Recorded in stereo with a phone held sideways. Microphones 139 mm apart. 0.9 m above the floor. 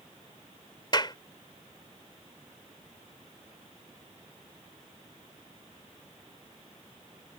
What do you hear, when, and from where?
0.9 s a clap: 35° left (ahead or behind)